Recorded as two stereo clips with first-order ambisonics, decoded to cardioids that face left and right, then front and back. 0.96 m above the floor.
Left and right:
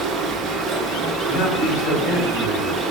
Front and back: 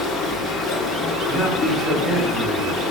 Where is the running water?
55° right, 1.0 m.